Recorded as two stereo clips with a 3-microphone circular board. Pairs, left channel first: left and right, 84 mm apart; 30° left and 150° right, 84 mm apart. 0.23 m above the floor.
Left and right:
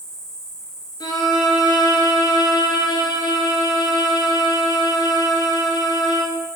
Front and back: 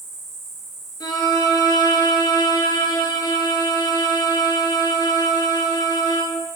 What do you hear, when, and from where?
0.0 s an insect: 130° left, 2.5 m
1.0 s a violin: 60° left, 2 m